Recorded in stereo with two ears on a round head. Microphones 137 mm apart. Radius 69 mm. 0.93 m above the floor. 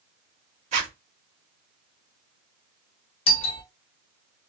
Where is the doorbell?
35° left (ahead or behind), 0.7 m.